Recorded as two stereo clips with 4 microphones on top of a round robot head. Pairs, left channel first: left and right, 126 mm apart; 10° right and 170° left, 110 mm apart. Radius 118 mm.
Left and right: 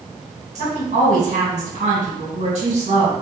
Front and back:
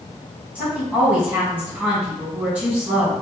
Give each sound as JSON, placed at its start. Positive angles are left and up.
{"t": 0.6, "sound": "a woman speaking", "azimuth_deg": -115, "distance_m": 2.0}